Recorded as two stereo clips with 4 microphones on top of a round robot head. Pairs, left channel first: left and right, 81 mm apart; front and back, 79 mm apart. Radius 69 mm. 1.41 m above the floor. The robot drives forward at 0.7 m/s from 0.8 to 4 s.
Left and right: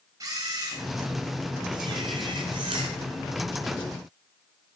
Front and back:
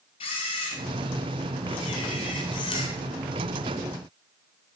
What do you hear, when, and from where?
0.2 s a camera shutter: 25° right, 3.5 m; by 2.9 s 45° right, 2.5 m